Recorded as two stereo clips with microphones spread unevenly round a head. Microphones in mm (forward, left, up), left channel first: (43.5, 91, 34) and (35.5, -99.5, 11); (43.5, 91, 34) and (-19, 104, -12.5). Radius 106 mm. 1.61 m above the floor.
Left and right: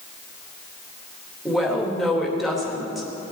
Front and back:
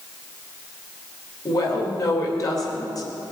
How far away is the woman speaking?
About 2.5 m.